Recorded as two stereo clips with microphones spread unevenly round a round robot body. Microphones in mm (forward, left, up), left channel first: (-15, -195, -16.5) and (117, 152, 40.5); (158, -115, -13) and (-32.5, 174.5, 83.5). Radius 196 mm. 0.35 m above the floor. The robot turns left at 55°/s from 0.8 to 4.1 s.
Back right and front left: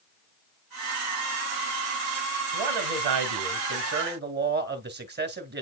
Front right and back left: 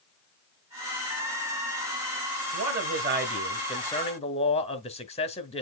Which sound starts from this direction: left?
A man speaking, at 2.5 s.